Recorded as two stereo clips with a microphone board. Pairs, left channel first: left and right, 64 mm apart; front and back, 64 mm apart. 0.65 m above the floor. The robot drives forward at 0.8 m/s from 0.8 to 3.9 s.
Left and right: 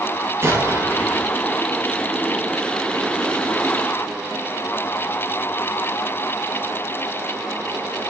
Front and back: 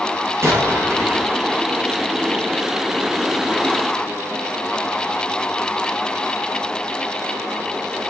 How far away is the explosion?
About 7.5 m.